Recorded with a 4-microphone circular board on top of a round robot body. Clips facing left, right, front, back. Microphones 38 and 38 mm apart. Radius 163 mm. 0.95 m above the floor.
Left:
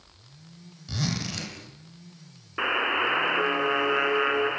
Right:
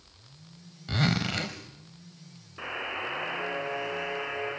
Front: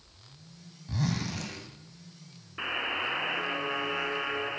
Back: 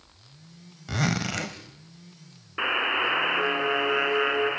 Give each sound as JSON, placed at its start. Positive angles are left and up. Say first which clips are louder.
{"t": 0.9, "sound": "a zipper", "louder": "right 4 dB, back 5 dB", "azimuth_deg": -155, "distance_m": 1.0}
{"t": 2.6, "sound": "a buzzer", "louder": "left 9 dB, back 7 dB", "azimuth_deg": 115, "distance_m": 1.8}